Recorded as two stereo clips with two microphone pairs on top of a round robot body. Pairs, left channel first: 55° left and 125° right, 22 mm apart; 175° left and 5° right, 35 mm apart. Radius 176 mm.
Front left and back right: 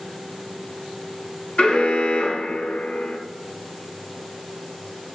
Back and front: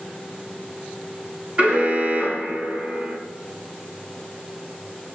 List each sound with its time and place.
1.6 s an alarm: 50° left, 4.5 m